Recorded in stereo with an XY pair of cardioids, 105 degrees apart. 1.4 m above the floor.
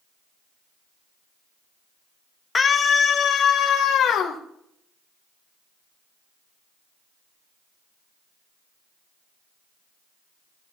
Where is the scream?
30° left, 1.2 m; by 4.4 s 70° left, 3 m.